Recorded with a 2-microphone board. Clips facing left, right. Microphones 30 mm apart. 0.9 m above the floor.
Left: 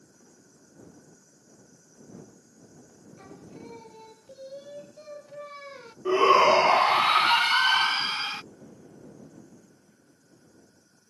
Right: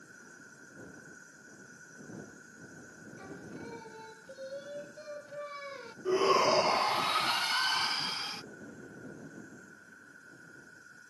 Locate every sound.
0.0 s an insect: 70° right (ahead or behind)
3.2 s singing: 5° left (ahead or behind)
6.0 s a shout: 45° left (ahead or behind)